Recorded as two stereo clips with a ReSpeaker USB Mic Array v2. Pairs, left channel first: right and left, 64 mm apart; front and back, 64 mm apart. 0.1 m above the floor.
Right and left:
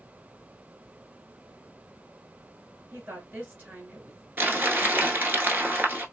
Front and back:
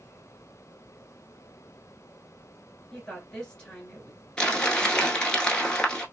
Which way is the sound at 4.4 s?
70° left.